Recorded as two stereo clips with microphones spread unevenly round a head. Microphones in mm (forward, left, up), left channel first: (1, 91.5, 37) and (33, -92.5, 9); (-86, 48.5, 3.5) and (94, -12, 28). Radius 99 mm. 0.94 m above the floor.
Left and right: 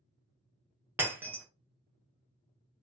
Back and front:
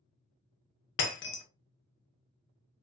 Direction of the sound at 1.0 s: 165° right.